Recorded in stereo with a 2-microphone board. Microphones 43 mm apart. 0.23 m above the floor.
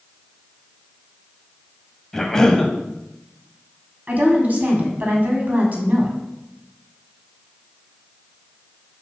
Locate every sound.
2.1 s a cough: 10° left (ahead or behind), 1.0 m
4.1 s a woman speaking: 40° right (ahead or behind), 1.9 m